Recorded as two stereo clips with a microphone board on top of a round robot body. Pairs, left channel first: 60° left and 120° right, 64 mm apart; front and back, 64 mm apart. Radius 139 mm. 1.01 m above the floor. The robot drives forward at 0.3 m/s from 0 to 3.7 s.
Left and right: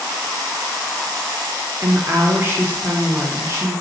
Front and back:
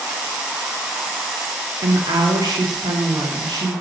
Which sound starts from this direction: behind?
A woman speaking, at 1.8 s.